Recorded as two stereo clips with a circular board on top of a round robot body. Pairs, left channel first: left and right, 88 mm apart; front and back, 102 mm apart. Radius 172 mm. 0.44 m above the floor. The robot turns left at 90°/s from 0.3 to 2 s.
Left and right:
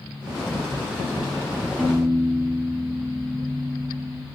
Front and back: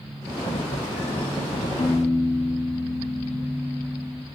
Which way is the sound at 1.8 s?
10° right.